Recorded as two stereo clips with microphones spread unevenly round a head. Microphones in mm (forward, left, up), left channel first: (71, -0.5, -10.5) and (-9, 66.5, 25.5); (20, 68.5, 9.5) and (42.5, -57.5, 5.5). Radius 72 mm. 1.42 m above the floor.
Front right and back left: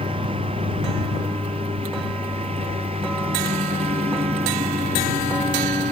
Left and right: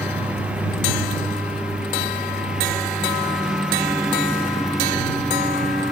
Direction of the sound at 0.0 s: 165° right.